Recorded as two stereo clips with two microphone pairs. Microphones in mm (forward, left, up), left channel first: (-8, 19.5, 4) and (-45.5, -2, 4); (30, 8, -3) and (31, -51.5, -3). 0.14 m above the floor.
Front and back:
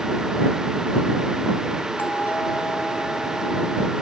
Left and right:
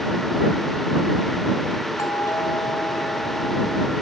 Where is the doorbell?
70° left.